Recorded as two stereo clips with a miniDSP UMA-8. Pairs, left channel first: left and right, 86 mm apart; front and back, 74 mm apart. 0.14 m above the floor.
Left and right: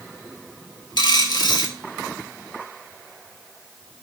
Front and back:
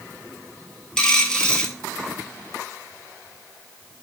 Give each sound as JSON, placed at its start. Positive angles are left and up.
{"t": 1.0, "sound": "a dropped coin", "azimuth_deg": 75, "distance_m": 0.5}